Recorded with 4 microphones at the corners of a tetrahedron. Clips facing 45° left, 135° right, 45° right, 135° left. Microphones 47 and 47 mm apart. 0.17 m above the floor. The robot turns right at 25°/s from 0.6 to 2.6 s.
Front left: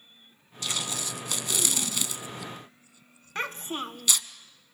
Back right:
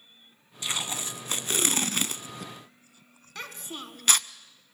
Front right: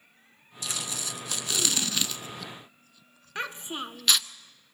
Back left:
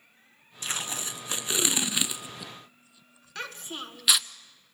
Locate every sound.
0.6 s tape being pulled: 165° left, 0.6 m; by 4.3 s 145° right, 0.6 m
3.4 s a child speaking: 10° left, 1.2 m